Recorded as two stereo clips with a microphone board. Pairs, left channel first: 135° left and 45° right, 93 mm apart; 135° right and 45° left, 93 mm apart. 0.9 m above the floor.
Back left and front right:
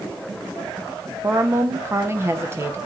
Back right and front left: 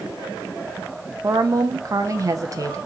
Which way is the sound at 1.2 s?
5° left.